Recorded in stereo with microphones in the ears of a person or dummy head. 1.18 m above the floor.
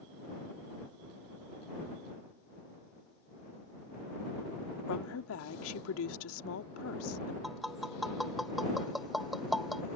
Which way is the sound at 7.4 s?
5° left (ahead or behind).